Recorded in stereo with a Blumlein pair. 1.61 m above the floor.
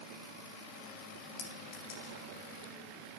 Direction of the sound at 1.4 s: 50° left.